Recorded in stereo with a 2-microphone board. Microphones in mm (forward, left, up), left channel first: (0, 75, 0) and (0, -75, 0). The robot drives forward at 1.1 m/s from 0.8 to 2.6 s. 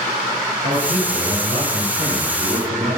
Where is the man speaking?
65° right (ahead or behind), 4 m; by 3.0 s 70° right (ahead or behind), 4 m.